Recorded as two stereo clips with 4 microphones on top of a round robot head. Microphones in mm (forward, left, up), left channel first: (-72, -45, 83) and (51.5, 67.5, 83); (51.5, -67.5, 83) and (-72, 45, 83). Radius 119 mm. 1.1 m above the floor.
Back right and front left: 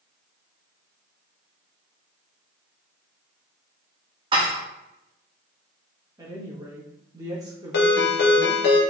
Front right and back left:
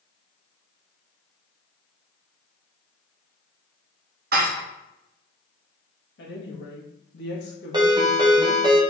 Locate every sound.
4.3 s dishes clattering: 105° left, 0.7 m
6.2 s a woman speaking: 30° right, 1.3 m
7.7 s a ringtone: 155° right, 0.8 m